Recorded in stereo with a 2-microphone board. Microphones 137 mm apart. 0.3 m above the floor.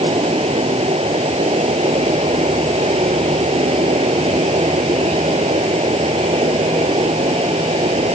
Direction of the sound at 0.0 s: 45° right (ahead or behind).